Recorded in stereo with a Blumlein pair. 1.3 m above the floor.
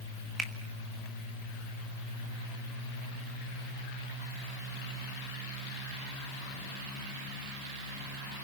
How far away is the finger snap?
About 2.5 m.